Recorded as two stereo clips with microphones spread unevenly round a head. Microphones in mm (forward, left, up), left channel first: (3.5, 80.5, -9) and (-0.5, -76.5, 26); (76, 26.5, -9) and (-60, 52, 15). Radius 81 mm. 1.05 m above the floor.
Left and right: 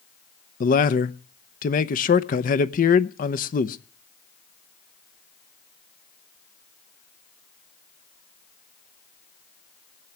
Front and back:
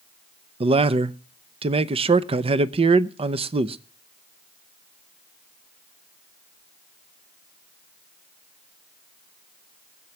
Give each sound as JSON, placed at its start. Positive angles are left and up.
{"t": 0.6, "sound": "a man speaking", "azimuth_deg": 120, "distance_m": 0.8}